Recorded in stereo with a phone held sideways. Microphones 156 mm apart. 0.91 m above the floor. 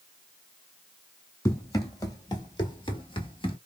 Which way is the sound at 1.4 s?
20° left (ahead or behind).